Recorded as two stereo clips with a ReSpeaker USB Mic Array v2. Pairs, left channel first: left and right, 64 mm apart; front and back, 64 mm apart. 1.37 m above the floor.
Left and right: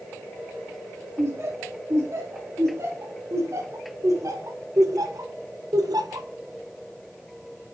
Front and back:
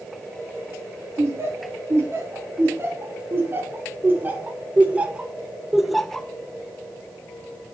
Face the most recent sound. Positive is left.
turn(degrees=-80)